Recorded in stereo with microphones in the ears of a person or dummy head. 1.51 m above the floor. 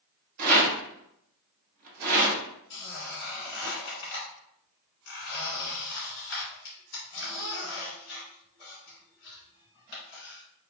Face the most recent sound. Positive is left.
turn(degrees=45)  # may be behind; listen again after turning